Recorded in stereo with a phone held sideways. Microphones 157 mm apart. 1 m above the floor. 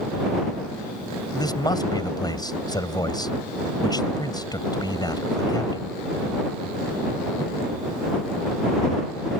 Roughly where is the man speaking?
Left.